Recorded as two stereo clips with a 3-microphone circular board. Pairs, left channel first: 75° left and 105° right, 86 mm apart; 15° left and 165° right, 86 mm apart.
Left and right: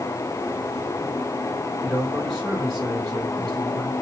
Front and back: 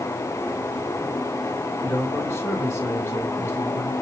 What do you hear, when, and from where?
1.8 s a man speaking: 15° right, 1.6 m